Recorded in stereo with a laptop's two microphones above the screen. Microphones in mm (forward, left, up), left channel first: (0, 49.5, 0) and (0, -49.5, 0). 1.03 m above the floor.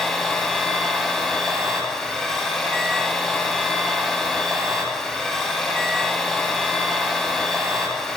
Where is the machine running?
Centre (ahead or behind), 1.6 m.